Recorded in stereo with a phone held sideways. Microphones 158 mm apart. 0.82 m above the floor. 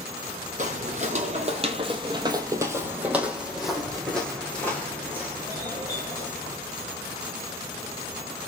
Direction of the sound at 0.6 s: 50° right (ahead or behind).